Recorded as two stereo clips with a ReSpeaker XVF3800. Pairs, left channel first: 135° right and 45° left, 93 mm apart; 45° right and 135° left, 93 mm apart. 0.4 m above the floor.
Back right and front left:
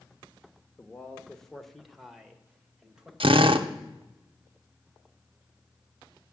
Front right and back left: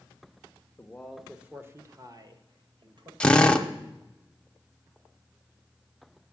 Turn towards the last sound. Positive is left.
turn(degrees=35)